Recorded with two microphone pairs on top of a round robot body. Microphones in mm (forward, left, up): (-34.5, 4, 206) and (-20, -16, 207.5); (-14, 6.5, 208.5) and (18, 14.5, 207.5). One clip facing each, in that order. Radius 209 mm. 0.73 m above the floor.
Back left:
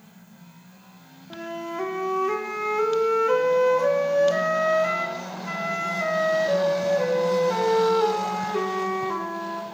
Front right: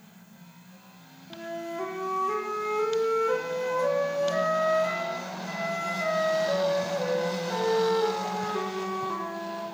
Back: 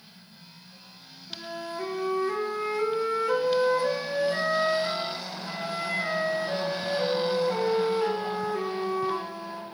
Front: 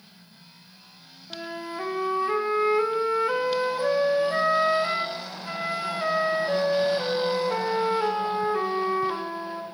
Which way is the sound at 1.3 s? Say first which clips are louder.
Back left 3 dB, front 2 dB; 70° left.